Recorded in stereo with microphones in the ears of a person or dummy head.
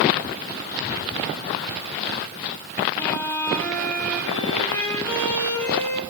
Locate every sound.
3.0 s a violin: 10° left (ahead or behind), 4 m